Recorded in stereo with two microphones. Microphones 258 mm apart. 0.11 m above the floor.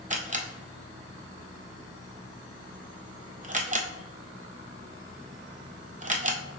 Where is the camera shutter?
30° right (ahead or behind), 0.6 m.